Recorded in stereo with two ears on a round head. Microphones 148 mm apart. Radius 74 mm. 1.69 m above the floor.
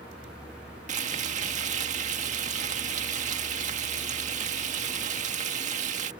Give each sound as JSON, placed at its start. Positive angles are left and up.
{"t": 0.9, "sound": "frying", "side_deg": -45}